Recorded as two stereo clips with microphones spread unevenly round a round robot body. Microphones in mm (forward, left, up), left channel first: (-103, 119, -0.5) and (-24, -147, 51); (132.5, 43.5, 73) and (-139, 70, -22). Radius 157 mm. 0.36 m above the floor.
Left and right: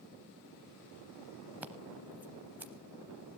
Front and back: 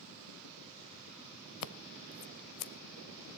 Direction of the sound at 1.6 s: 15° left.